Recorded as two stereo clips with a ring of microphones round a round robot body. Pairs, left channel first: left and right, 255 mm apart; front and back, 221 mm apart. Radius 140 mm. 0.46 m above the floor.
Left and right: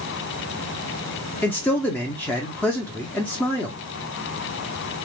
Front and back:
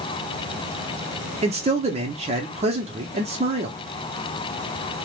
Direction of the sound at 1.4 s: 165° left.